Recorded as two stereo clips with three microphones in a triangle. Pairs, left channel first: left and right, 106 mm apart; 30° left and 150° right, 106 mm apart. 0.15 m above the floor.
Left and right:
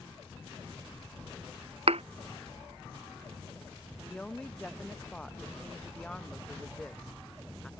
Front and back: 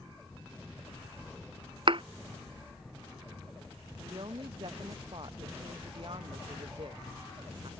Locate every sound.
1.9 s a thud: 110° right
4.1 s a woman speaking: 175° left